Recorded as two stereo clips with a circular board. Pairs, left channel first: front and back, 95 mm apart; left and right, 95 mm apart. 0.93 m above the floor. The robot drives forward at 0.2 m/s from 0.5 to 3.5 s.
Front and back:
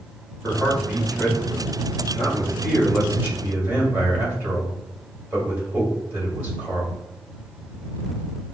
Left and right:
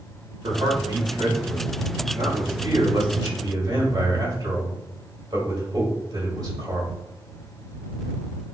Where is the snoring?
I don't hear snoring.